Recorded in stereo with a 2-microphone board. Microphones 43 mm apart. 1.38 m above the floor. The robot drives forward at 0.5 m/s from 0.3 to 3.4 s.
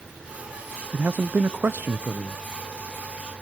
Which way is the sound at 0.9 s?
55° right (ahead or behind).